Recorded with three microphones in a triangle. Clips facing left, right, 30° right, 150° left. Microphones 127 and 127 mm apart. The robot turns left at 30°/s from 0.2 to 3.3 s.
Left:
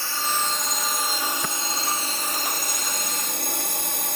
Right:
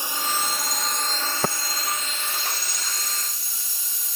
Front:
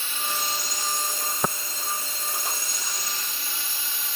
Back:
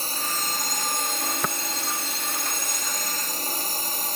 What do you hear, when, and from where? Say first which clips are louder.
0.0 s a drone: even, even; 160° right; by 4.2 s 105° left
1.4 s tapping: right 6 dB, front 4 dB; 95° right